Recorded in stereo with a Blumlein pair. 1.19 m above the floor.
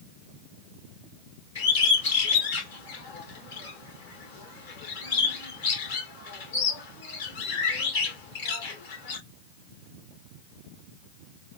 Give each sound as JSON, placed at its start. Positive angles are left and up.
{"t": 1.6, "sound": "a bird", "azimuth_deg": 60, "distance_m": 2.0}